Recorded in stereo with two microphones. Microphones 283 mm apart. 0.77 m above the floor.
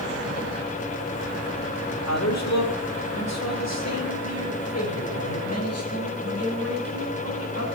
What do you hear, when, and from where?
1.9 s a man speaking: 65° left (ahead or behind), 2 m; by 7.6 s 55° left (ahead or behind), 7 m